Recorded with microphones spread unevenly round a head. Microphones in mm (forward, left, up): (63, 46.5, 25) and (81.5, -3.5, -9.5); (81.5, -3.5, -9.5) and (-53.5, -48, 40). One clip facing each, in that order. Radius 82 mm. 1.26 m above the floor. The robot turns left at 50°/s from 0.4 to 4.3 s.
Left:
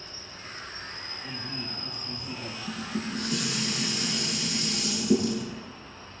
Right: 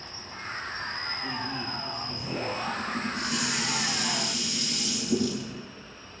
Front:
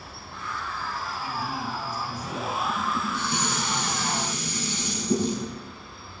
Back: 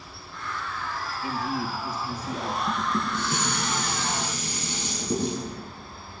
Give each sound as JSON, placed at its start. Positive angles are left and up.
{"t": 0.0, "sound": "an insect", "azimuth_deg": -20, "distance_m": 5.5}
{"t": 1.2, "sound": "a man speaking", "azimuth_deg": -125, "distance_m": 3.0}
{"t": 2.7, "sound": "dishes clattering", "azimuth_deg": -160, "distance_m": 9.5}